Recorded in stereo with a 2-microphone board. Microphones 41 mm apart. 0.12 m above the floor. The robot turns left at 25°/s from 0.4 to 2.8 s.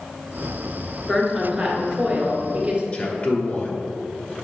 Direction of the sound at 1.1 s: Straight ahead.